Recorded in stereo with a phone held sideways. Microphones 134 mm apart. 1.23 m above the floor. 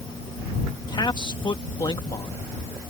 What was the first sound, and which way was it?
A man speaking, 35° left (ahead or behind).